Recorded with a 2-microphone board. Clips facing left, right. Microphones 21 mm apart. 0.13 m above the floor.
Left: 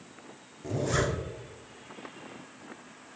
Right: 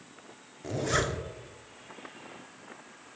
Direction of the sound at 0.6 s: 20° right (ahead or behind).